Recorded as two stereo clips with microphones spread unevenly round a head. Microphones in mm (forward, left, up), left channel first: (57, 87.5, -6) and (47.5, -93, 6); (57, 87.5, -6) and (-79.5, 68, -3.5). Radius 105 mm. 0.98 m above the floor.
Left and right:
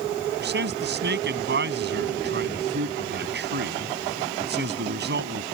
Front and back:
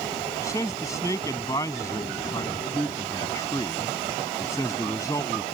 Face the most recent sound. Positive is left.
turn(degrees=-70)